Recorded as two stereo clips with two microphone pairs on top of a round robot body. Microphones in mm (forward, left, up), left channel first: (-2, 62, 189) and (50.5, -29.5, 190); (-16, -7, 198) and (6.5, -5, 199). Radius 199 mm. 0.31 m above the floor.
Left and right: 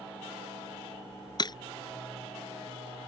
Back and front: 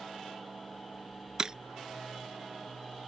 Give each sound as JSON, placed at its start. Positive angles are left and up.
{"t": 1.4, "sound": "breaking glass", "azimuth_deg": 70}